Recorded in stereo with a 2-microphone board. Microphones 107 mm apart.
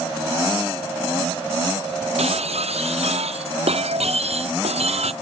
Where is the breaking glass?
75° right (ahead or behind).